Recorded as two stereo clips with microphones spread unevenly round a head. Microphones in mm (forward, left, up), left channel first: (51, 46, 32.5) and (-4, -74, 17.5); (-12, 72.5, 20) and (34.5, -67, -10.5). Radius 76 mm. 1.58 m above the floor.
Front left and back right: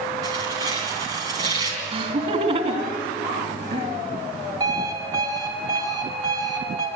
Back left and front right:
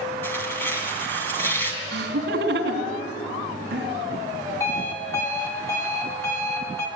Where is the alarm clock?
175° left, 2.5 m.